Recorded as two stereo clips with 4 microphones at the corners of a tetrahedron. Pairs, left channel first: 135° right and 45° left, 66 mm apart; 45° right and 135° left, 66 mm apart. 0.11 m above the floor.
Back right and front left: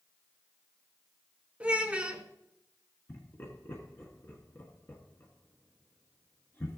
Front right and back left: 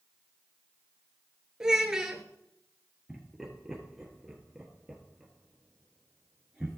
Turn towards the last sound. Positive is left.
turn(degrees=-145)